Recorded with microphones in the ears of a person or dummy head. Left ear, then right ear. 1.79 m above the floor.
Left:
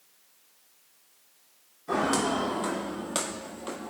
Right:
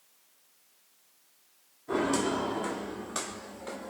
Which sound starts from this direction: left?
Footsteps, at 1.9 s.